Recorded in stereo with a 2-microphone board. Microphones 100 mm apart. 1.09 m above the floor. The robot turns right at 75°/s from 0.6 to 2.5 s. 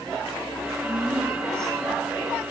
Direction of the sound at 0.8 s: 150° left.